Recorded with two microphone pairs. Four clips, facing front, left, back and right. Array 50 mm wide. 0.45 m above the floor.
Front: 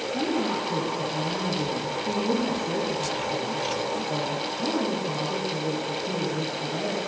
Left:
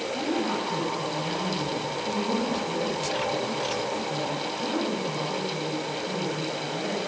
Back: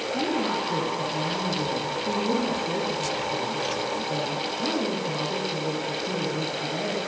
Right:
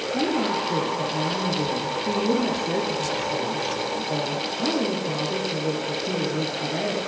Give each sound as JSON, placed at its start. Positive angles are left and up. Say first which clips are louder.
{"t": 0.1, "sound": "a woman speaking", "louder": "right 5 dB, even", "azimuth_deg": -95, "distance_m": 7.5}